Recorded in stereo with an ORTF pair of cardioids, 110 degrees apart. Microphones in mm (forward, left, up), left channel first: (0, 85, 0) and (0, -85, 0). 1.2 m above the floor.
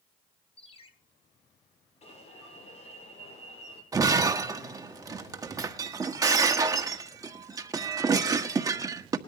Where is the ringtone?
35° left, 5.5 m.